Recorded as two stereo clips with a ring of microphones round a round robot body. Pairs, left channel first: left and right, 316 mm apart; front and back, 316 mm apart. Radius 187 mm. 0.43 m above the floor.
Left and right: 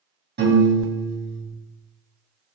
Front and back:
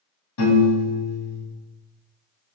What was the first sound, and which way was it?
A piano, 35° right.